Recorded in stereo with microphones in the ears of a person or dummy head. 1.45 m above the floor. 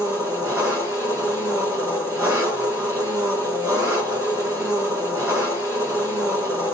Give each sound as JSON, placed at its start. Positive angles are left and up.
{"t": 0.0, "sound": "an engine running", "side_deg": -15, "distance_m": 1.2}